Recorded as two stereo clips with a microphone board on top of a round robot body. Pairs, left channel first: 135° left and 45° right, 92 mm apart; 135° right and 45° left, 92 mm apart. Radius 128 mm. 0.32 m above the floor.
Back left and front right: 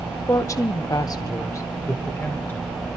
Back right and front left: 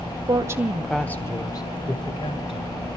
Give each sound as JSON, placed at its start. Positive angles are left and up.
{"t": 0.3, "sound": "a woman speaking", "azimuth_deg": 80, "distance_m": 1.3}